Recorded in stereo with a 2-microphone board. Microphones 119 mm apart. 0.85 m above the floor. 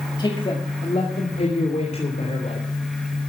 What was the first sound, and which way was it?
A man speaking, 35° left (ahead or behind).